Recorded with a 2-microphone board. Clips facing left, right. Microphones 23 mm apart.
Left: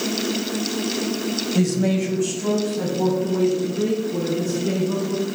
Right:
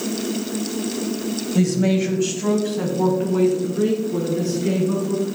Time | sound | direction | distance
1.6 | a man speaking | centre (ahead or behind) | 1.5 m